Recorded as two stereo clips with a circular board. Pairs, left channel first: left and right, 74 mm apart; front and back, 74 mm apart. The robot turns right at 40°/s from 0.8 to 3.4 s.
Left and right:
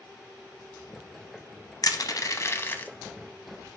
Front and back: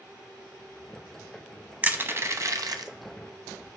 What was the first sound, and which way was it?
Crushing, 115° left.